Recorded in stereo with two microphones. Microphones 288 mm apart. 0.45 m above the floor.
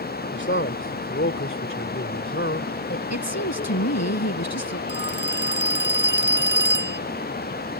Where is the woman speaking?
75° left (ahead or behind).